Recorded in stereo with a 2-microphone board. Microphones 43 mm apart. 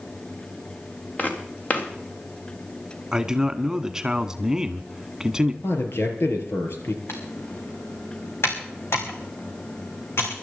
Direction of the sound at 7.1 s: 70° left (ahead or behind).